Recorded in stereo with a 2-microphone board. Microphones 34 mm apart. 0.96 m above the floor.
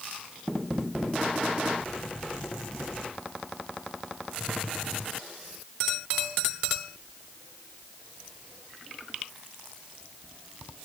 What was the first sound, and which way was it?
Only background noise.